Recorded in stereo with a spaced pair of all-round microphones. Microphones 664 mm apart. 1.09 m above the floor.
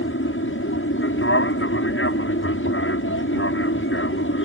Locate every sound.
0.0 s an aircraft: 15° left (ahead or behind)